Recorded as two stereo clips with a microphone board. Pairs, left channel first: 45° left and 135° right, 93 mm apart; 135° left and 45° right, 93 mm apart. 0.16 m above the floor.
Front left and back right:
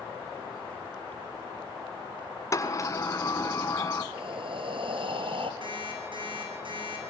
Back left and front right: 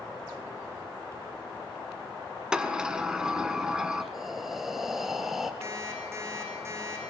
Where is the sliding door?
30° left, 1.5 m.